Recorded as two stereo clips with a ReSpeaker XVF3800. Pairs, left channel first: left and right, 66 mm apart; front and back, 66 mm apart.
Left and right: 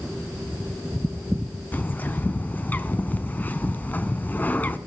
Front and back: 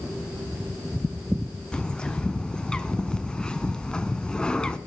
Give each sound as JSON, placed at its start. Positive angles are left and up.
{"t": 1.7, "sound": "a bird", "azimuth_deg": 60, "distance_m": 0.7}